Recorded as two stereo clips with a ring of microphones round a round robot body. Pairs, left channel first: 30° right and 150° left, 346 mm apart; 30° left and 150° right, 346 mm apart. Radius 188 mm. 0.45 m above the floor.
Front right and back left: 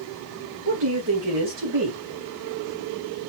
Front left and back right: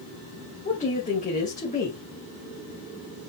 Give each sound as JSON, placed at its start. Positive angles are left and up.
{"t": 0.7, "sound": "a woman speaking", "azimuth_deg": 100, "distance_m": 3.5}